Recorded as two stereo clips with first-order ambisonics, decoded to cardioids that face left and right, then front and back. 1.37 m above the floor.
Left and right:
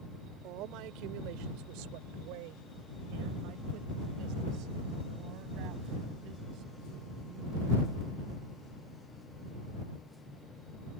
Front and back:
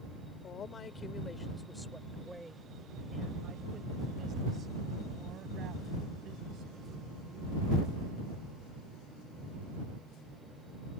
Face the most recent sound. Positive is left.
turn(degrees=-135)